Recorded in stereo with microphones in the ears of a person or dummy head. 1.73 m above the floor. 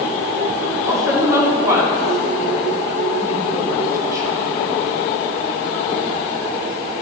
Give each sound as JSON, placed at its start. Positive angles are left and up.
{"t": 0.9, "sound": "a woman speaking", "side_deg": -20, "distance_m": 3.5}